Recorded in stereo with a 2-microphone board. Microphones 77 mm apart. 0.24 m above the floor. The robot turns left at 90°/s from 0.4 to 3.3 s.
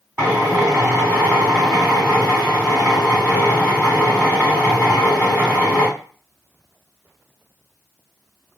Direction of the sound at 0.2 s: 50° right.